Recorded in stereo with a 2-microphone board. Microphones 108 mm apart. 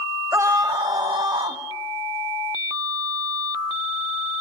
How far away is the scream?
About 0.9 m.